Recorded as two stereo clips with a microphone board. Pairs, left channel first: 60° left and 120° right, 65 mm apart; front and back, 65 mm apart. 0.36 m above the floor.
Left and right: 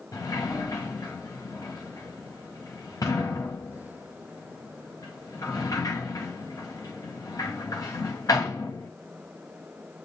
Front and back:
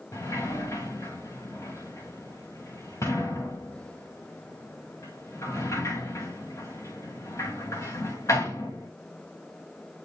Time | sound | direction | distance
0.1 | a sliding door | 35° left | 7.5 m